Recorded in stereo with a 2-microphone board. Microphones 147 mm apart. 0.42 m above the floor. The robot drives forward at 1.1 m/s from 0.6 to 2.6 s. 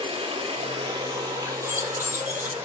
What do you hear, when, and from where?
0.0 s running water: 35° right (ahead or behind), 1.7 m; by 2.6 s 15° right (ahead or behind), 3.5 m
1.6 s keys jangling: 20° right (ahead or behind), 1.3 m; by 2.5 s 10° right (ahead or behind), 2 m